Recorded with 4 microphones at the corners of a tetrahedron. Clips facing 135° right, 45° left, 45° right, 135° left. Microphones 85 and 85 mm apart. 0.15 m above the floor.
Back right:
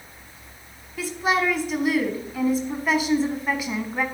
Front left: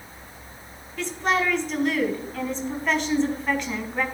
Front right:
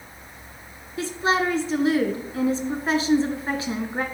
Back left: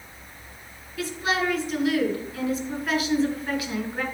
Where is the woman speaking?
60° right, 1.2 m.